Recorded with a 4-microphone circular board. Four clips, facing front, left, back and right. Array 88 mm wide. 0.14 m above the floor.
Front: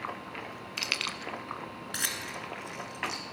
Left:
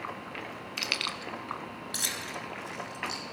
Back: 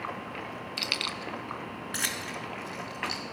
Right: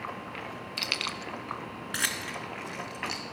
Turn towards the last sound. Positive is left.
turn(degrees=-105)